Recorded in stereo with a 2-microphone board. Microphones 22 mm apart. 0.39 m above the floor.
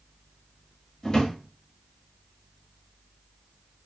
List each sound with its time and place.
1.0 s a drawer: 30° left (ahead or behind), 0.9 m